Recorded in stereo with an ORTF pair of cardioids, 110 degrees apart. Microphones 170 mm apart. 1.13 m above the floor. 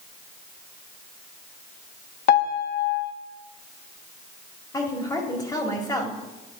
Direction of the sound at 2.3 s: 65° left.